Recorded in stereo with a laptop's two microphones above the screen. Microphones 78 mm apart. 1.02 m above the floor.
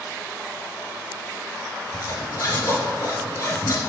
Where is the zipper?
45° left (ahead or behind), 2.5 m.